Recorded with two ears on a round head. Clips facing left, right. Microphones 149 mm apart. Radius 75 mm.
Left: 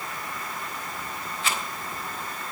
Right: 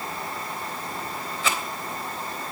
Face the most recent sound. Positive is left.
turn(degrees=-70)  # may be behind; listen again after turning